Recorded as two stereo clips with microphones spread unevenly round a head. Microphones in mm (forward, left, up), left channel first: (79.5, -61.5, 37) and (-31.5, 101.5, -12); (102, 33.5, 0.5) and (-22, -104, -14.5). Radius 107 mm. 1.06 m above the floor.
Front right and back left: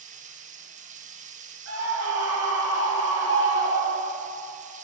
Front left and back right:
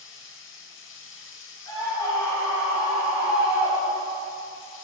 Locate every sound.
0.0 s running water: 80° left, 1.2 m
1.7 s a scream: 120° left, 5 m